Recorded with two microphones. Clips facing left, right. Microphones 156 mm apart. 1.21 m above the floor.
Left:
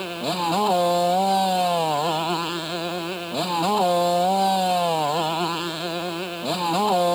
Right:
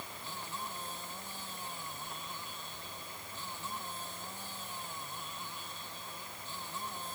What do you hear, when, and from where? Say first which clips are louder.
0.0 s a motorcycle: left 21 dB; 85° left